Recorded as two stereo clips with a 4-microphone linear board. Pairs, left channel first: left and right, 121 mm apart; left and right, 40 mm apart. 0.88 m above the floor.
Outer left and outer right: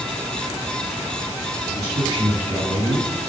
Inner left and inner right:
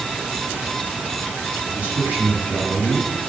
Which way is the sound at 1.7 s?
45° right (ahead or behind).